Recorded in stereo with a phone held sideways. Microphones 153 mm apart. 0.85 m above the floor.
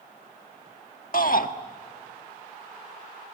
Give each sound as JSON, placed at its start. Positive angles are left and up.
{"t": 1.1, "sound": "a shout", "side_deg": 65, "distance_m": 1.5}